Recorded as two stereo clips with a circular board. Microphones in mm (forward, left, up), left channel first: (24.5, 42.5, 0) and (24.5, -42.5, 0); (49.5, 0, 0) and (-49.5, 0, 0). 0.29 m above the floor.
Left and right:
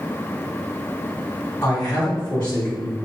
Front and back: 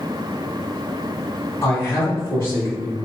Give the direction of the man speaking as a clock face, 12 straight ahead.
11 o'clock.